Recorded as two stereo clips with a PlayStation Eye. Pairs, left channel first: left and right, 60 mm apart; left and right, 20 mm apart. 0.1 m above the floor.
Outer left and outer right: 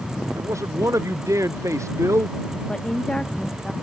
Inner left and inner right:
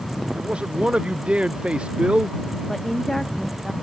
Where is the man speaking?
55° right (ahead or behind).